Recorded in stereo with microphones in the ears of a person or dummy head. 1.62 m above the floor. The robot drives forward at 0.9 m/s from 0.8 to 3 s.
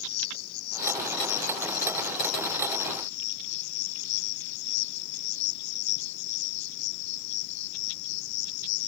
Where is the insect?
60° left (ahead or behind); by 8.9 s 65° left (ahead or behind).